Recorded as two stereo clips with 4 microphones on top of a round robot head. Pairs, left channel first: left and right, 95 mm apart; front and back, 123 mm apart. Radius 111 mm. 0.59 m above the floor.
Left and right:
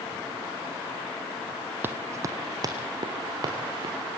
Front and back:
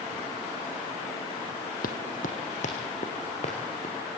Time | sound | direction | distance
1.8 | running footsteps | 25° right | 1.2 m